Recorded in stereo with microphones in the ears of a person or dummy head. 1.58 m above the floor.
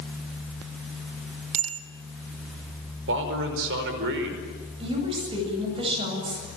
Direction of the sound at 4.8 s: 20° right (ahead or behind).